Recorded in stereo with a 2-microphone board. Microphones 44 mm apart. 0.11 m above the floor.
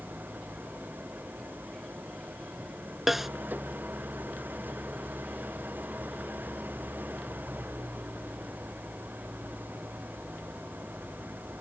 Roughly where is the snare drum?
Centre.